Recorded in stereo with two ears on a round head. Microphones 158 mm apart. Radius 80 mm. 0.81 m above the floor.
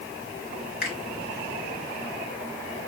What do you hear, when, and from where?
0.8 s a finger snap: 60° left (ahead or behind), 2.5 m